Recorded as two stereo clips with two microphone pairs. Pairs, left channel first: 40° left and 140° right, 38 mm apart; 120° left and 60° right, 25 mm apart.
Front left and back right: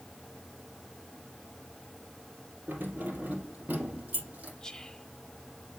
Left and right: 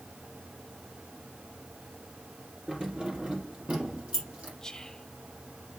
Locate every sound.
2.7 s keys jangling: 105° right, 3.5 m; by 4.5 s 90° right, 6 m
4.6 s whispering: 80° left, 1.6 m